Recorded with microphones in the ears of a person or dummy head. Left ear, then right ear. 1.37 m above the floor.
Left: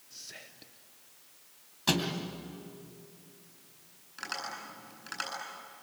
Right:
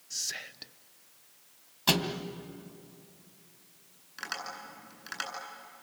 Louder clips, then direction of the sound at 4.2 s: Even; 5° right (ahead or behind).